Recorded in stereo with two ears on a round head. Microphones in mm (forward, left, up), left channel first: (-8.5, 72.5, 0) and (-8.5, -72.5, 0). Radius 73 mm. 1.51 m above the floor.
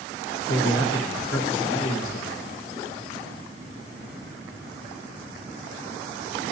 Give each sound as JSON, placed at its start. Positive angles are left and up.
{"t": 0.2, "sound": "a man speaking", "side_deg": 70, "distance_m": 1.5}